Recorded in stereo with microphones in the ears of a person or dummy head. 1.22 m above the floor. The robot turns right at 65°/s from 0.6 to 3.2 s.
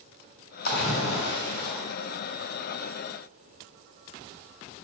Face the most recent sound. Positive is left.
turn(degrees=-135)